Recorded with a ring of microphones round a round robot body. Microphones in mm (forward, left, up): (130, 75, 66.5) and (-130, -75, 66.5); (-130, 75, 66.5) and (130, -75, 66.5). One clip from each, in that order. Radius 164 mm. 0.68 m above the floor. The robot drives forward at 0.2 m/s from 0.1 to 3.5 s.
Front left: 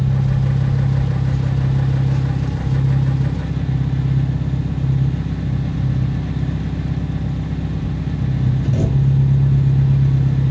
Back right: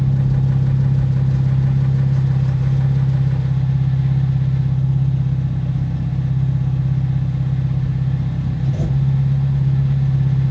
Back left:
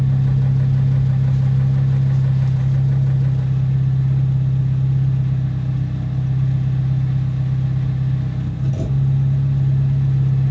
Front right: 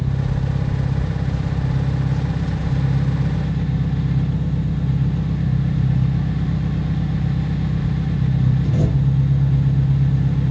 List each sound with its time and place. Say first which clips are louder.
0.0 s an engine running: even, back left 3 dB; 80° left, 1.9 m; by 10.5 s 100° left, 1.9 m